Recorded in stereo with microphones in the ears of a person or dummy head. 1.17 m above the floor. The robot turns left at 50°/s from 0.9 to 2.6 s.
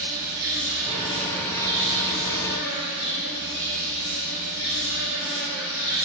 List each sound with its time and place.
0.0 s an insect: 165° right, 1.3 m; by 6.0 s 110° left, 1.3 m